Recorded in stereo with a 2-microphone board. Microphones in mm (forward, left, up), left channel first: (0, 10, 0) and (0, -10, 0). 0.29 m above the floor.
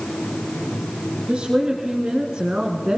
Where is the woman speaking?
55° right (ahead or behind), 4.5 m; by 3.0 s 60° right (ahead or behind), 3.5 m.